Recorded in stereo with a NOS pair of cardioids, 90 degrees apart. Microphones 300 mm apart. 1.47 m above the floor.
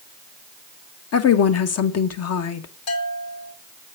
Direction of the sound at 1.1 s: 55° left.